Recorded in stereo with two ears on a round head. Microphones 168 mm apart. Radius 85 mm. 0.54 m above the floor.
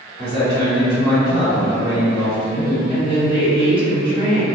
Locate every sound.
0.2 s a man speaking: 20° right (ahead or behind), 1.3 m
2.9 s a woman speaking: 25° left (ahead or behind), 1.1 m